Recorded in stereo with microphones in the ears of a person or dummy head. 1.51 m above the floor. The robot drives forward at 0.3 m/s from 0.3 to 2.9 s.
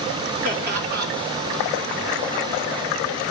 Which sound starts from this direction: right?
Laughter, at 0.4 s.